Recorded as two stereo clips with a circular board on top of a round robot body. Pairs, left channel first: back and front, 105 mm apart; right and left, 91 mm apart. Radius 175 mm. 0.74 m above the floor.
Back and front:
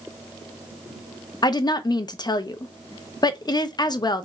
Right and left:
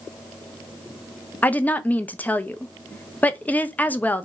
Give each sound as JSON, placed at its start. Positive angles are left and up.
{"t": 1.4, "sound": "a woman speaking", "azimuth_deg": -155, "distance_m": 0.6}